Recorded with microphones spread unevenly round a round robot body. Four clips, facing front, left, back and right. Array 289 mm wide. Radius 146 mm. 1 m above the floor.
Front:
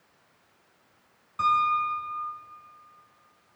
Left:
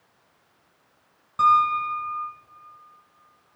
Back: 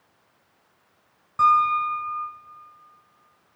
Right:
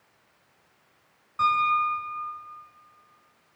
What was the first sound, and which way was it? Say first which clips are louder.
A piano: left 4 dB, back 5 dB; 135° left.